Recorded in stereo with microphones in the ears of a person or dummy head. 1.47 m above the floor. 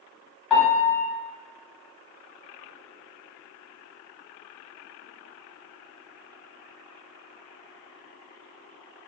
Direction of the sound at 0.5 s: Centre (ahead or behind).